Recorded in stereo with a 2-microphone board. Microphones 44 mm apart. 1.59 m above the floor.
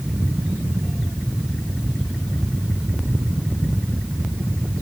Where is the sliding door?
I don't hear a sliding door.